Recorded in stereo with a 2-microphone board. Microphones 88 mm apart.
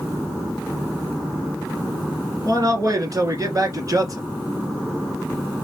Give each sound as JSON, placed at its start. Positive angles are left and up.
{"t": 2.5, "sound": "a man speaking", "side_deg": -45, "distance_m": 2.0}